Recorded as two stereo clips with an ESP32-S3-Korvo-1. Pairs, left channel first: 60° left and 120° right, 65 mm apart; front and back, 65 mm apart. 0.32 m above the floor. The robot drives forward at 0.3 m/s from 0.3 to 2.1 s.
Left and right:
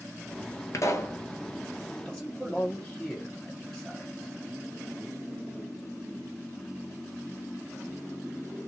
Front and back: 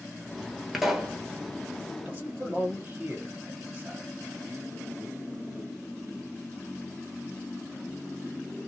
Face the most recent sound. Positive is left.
turn(degrees=135)